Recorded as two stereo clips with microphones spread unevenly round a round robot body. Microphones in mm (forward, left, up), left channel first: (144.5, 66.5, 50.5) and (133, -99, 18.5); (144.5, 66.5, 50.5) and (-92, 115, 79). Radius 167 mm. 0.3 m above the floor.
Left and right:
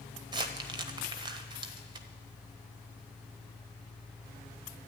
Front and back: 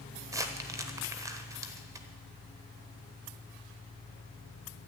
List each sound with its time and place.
0.3 s crumpling: 115° right, 1.1 m